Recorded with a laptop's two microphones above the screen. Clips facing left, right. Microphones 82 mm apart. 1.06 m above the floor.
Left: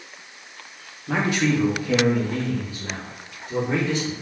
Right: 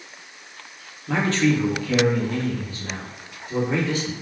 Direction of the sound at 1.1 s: 10° left (ahead or behind).